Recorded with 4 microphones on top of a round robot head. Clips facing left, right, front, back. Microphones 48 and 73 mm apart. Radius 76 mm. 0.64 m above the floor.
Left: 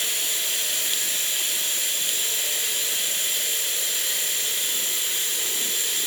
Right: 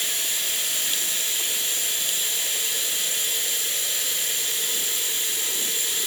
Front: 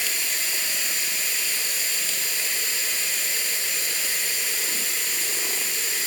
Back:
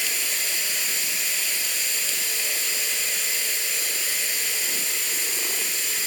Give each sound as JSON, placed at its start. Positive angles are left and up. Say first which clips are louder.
{"t": 0.0, "sound": "running water", "louder": "even, even", "azimuth_deg": 35, "distance_m": 1.8}